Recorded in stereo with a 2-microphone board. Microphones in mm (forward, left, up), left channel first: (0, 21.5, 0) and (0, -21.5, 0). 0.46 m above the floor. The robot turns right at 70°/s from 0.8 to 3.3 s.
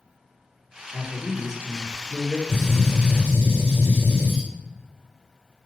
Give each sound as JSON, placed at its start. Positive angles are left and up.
{"t": 0.9, "sound": "a man speaking", "side_deg": 15, "distance_m": 0.7}
{"t": 2.5, "sound": "a gunshot", "azimuth_deg": 175, "distance_m": 2.0}